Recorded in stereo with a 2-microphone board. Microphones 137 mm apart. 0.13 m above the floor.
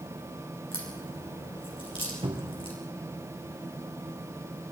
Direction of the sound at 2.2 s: 45° right (ahead or behind).